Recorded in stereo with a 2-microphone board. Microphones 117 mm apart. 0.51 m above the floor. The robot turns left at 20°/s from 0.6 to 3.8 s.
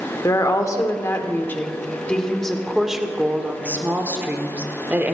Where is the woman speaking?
40° left, 1.3 m; by 5.2 s 20° right, 1.3 m.